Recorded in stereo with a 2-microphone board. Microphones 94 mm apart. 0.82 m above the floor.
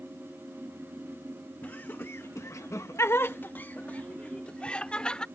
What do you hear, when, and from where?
1.6 s laughter: 20° left (ahead or behind); by 5.2 s 10° left (ahead or behind)